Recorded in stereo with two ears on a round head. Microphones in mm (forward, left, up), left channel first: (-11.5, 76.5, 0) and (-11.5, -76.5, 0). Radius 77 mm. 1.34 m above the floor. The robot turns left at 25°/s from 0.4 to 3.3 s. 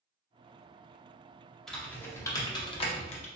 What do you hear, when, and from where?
1.7 s typing on a keyboard: 5° left (ahead or behind), 0.7 m; by 3.2 s 40° left (ahead or behind), 0.7 m